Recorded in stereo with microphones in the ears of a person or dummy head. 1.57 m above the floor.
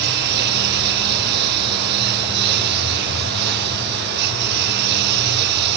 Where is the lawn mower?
55° right (ahead or behind); by 5.8 s 60° right (ahead or behind).